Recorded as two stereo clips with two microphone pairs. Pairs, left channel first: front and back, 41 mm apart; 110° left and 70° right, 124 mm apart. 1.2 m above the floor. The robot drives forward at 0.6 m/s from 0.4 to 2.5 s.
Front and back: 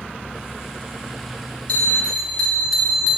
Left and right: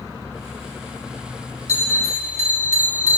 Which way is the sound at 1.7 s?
55° right.